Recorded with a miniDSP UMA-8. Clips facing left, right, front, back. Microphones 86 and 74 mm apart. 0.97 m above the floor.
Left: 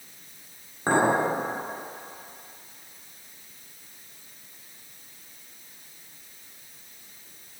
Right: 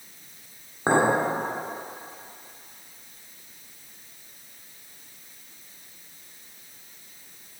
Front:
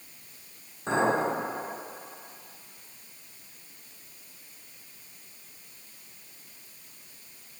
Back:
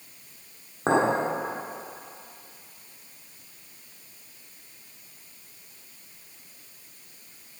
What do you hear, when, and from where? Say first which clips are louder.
0.9 s a clink: right 1 dB, back 3 dB; 155° right, 1.4 m